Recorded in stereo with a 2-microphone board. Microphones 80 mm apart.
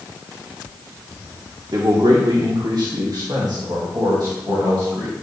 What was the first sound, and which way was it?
A man speaking, 65° right (ahead or behind).